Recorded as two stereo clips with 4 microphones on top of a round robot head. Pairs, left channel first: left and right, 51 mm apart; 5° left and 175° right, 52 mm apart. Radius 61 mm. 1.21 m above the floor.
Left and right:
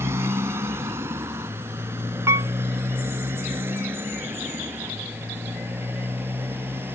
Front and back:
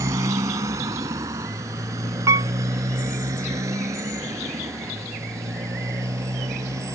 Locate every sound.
0.0 s a motorcycle: 140° right; by 7.0 s 145° right
2.3 s a piano: 135° right